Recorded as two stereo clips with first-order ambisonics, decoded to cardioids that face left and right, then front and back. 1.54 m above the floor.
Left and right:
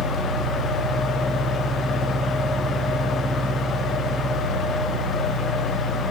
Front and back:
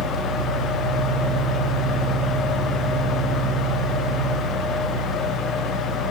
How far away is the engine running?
About 2 m.